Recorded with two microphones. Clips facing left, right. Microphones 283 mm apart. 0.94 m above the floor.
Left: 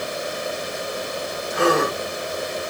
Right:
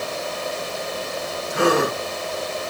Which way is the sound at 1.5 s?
35° right (ahead or behind).